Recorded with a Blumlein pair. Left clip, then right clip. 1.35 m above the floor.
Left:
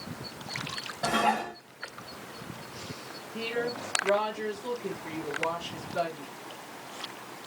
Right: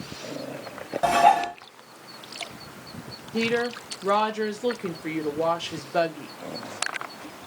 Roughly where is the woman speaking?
Ahead right.